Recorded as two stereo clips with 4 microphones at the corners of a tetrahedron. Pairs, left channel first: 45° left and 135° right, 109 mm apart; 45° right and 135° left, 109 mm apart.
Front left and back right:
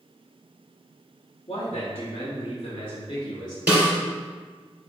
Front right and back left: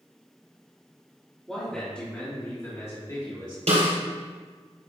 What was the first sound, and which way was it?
A man speaking, 40° left.